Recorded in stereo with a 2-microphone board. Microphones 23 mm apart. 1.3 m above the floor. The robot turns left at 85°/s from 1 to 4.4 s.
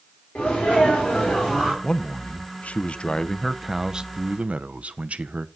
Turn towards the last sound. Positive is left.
turn(degrees=-70)